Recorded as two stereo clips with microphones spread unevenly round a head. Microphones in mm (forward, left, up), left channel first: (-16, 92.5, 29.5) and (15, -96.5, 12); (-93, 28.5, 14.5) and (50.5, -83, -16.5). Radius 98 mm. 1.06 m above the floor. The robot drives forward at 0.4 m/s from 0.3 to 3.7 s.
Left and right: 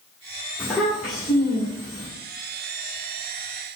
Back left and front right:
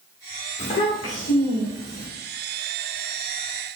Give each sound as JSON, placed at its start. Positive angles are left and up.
{"t": 0.6, "sound": "a child speaking", "azimuth_deg": -165, "distance_m": 2.5}